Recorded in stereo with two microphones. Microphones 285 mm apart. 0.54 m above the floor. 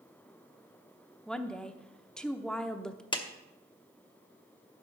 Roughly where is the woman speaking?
Centre.